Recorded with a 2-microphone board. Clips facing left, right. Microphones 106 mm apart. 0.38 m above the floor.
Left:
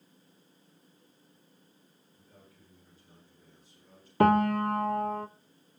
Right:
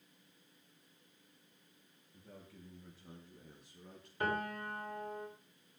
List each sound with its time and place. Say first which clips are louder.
2.1 s a man speaking: right 5 dB; 80° right, 7 m; by 4.1 s 75° right (ahead or behind), 6 m
4.2 s a piano: left 15 dB; 80° left, 0.6 m